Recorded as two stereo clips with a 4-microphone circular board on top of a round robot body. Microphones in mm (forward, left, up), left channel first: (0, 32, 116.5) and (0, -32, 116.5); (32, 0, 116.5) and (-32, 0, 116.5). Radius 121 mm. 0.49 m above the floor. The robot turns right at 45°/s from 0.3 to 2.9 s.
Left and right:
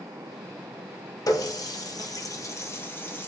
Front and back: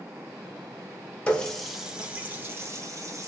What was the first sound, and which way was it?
A running tap, 70° left.